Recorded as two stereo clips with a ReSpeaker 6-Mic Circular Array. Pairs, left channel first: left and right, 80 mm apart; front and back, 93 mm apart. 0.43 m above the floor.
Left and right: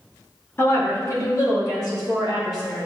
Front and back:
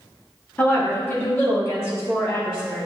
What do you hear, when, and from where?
0.6 s a woman speaking: 60° left, 0.9 m